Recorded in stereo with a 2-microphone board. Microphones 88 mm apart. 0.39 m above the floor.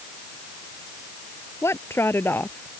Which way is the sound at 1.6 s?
30° left (ahead or behind).